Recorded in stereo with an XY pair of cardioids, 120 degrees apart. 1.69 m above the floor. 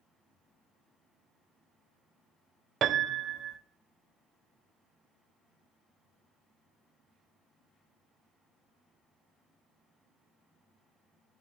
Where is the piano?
55° right, 0.9 m.